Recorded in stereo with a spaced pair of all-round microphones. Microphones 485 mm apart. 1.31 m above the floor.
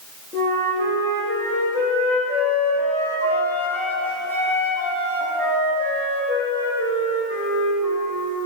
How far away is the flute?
About 2.5 m.